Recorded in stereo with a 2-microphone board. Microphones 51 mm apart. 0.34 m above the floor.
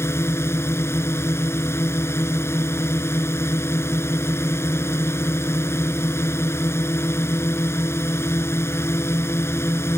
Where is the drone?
60° left (ahead or behind).